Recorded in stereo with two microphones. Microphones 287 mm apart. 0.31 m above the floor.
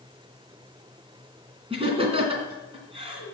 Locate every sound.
1.7 s laughter: 20° right (ahead or behind), 2.5 m